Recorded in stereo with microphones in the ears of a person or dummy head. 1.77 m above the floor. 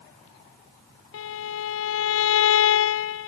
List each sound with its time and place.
1.1 s a violin: 75° left (ahead or behind), 0.7 m